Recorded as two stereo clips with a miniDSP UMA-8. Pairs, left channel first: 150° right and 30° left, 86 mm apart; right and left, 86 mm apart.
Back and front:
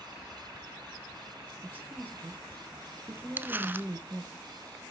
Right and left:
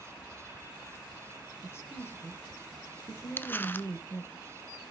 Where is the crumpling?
30° right, 0.6 m.